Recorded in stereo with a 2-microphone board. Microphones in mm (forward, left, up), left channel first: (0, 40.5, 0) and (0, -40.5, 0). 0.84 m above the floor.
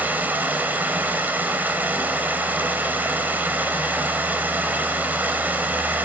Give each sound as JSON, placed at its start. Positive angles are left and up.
{"t": 0.0, "sound": "running water", "side_deg": -20, "distance_m": 3.5}